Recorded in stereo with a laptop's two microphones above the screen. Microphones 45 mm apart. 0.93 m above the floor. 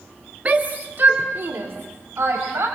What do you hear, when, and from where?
0.5 s a shout: 35° right (ahead or behind), 1.4 m; by 2.7 s 65° right (ahead or behind), 4.5 m